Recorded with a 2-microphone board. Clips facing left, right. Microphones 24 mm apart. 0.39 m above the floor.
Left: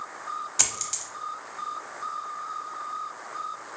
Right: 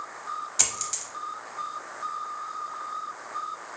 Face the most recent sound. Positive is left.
turn(degrees=5)  # may be behind; listen again after turning